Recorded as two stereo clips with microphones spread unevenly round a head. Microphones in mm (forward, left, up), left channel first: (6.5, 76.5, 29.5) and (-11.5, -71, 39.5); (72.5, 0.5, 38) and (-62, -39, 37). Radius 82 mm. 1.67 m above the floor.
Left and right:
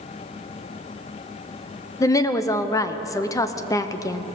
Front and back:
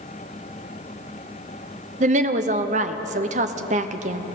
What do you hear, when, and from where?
2.0 s a woman speaking: 150° left, 1.0 m